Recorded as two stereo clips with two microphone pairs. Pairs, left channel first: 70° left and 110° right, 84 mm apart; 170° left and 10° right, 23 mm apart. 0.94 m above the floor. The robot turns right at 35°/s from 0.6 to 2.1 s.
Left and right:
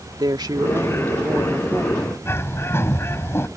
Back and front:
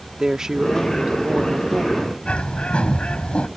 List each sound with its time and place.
0.2 s a woman speaking: 75° right; by 2.1 s 20° right
2.2 s a bird: 135° left